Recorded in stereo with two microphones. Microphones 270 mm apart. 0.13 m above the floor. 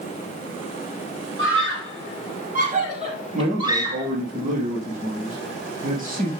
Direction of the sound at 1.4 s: 45° right (ahead or behind).